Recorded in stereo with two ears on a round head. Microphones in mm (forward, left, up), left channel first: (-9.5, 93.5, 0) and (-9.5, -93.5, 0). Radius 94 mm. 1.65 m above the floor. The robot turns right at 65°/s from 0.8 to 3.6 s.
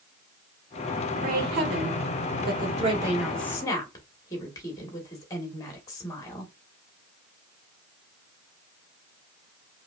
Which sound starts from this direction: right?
A woman speaking, at 1.2 s.